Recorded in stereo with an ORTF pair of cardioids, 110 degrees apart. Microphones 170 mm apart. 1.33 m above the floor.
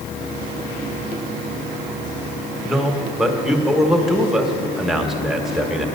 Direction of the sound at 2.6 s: 5° right.